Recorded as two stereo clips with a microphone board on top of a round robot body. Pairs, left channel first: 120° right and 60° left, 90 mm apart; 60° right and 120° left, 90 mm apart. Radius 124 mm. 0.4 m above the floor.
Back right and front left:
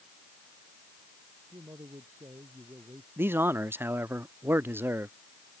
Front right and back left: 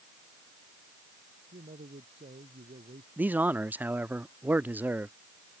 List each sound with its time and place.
1.5 s a man speaking: 120° left; by 3.1 s 130° left
3.2 s a man speaking: 80° left